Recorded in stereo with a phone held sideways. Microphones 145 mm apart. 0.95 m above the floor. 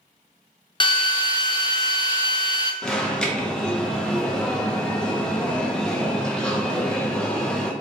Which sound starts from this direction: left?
A drill, at 0.8 s.